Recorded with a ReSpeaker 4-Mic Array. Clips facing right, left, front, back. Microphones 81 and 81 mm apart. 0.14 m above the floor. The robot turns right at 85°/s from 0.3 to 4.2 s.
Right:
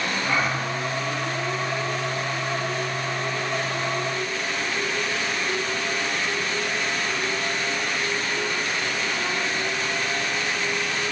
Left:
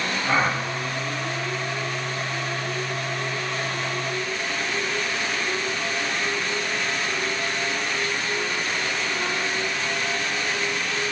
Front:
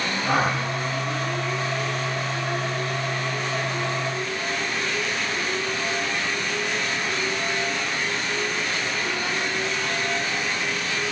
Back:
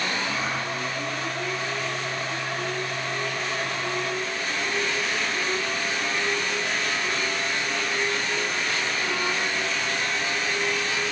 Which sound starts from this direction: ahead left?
A gasp, at 0.2 s.